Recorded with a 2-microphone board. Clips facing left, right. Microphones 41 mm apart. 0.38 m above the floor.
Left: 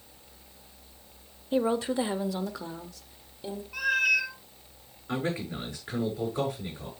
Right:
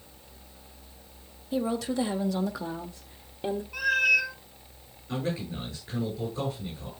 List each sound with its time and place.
1.5 s a woman speaking: 40° left (ahead or behind), 1.1 m; by 3.6 s 45° right (ahead or behind), 1.2 m
3.7 s a cat meowing: centre (ahead or behind), 1.4 m
5.1 s a man speaking: 75° left (ahead or behind), 7 m